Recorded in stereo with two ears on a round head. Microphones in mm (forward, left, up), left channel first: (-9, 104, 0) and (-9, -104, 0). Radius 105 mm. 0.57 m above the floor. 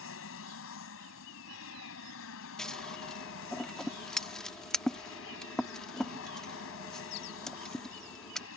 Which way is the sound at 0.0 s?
65° left (ahead or behind).